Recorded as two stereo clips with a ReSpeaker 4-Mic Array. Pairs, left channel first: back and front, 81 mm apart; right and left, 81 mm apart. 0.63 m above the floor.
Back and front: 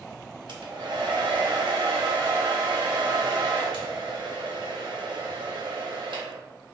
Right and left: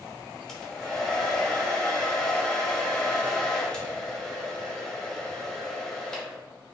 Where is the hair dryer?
10° right, 0.8 m.